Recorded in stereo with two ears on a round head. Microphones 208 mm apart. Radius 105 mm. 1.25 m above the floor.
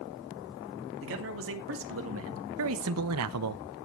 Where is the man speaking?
65° right (ahead or behind), 2.5 m; by 3.6 s 85° right, 0.6 m.